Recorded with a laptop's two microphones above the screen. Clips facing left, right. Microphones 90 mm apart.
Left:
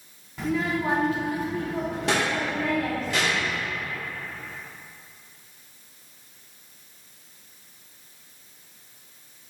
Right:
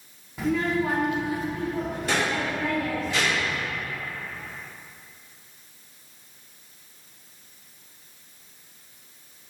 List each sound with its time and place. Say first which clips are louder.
0.4 s a child speaking: right 2 dB; 5° right (ahead or behind), 1.0 m; by 3.6 s 70° left (ahead or behind), 2.5 m